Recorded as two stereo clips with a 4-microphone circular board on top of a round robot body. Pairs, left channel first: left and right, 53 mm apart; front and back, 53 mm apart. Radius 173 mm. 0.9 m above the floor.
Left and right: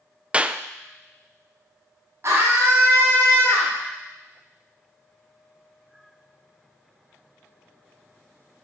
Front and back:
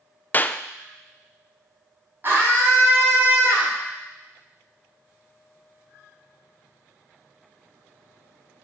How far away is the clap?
About 0.6 m.